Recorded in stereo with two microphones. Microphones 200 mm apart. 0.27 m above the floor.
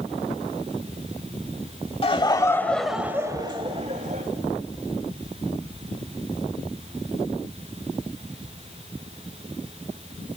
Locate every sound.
2.0 s laughter: 30° left (ahead or behind), 1.4 m; by 4.2 s 45° right (ahead or behind), 1.6 m